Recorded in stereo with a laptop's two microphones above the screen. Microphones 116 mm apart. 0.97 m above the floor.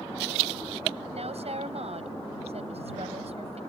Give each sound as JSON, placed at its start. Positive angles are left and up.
{"t": 1.1, "sound": "a woman speaking", "side_deg": -65}